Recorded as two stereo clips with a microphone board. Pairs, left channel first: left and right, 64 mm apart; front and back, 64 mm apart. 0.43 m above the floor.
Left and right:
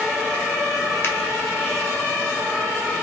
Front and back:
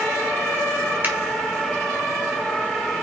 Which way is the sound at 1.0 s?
130° left.